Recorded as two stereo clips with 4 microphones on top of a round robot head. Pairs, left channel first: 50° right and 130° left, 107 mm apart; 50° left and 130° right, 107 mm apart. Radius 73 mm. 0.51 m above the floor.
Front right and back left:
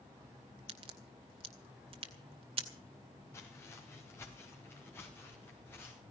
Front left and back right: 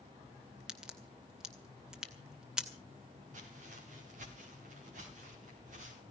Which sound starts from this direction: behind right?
Footsteps, at 3.3 s.